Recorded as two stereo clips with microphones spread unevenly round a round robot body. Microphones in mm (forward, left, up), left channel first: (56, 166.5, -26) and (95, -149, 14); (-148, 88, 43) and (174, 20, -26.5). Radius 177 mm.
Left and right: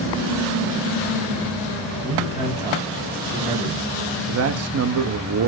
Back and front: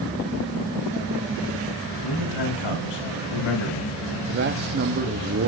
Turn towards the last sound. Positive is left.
turn(degrees=-45)